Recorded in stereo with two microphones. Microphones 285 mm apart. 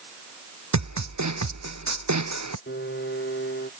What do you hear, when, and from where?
0.7 s a snare drum: 75° right (ahead or behind)
2.7 s a piano: 40° left (ahead or behind)